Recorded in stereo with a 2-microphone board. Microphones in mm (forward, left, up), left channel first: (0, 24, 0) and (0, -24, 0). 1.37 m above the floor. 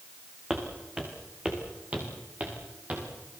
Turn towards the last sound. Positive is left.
turn(degrees=-35)  # may be behind; listen again after turning